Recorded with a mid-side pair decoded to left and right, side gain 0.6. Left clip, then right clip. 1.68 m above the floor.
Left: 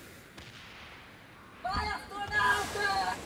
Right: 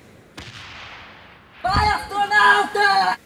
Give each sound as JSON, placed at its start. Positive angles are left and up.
{"t": 1.6, "sound": "a scream", "azimuth_deg": -60}